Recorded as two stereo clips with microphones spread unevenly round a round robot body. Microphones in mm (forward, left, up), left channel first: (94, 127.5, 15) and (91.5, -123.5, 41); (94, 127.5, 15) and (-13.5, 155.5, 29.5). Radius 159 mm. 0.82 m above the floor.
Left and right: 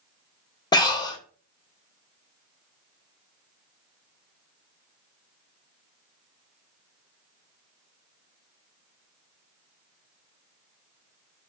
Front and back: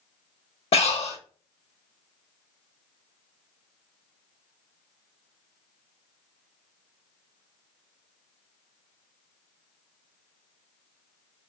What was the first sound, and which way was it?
Breathing, 15° left.